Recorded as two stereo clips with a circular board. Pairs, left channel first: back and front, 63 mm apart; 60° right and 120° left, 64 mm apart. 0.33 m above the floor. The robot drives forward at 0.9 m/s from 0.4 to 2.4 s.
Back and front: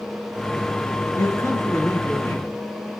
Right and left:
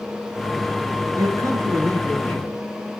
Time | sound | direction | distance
1.2 | a man speaking | 135° left | 5 m